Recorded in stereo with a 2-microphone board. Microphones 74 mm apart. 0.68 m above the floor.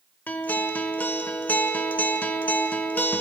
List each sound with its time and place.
0.3 s a guitar: 25° left (ahead or behind), 0.8 m